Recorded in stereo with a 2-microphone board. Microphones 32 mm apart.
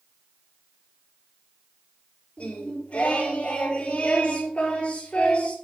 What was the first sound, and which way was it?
Singing, 45° left (ahead or behind).